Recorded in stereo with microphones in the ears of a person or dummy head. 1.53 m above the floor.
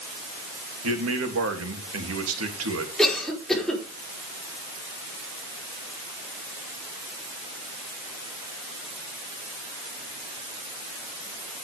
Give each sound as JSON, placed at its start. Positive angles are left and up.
{"t": 0.8, "sound": "a man speaking", "side_deg": -85, "distance_m": 3.0}
{"t": 3.0, "sound": "a cough", "side_deg": 0, "distance_m": 4.5}